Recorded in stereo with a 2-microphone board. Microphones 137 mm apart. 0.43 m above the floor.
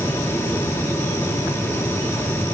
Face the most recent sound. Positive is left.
No sound to turn to.